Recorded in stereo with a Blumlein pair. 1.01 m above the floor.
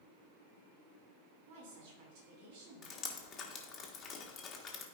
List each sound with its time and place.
1.5 s a woman speaking: 50° right, 2.5 m
2.8 s dripping: 25° left, 1.4 m